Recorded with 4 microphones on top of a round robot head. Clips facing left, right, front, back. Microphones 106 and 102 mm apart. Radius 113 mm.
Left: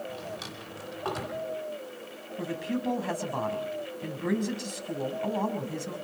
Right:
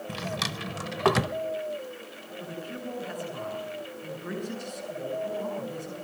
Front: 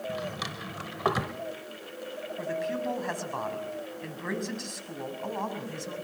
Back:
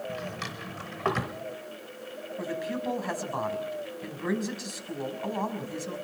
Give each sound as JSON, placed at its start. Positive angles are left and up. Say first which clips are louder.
{"t": 0.1, "sound": "a drawer", "louder": "right 5 dB, front 1 dB", "azimuth_deg": -85, "distance_m": 0.9}
{"t": 2.4, "sound": "a man speaking", "louder": "left 6 dB, front 1 dB", "azimuth_deg": 95, "distance_m": 5.5}